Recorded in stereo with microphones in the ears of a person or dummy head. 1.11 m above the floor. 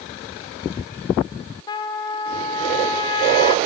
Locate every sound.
1.7 s a trumpet: 25° left (ahead or behind), 0.6 m